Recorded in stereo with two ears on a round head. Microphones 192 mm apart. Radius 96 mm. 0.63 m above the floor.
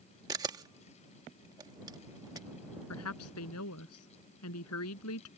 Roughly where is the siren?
No siren in this recording.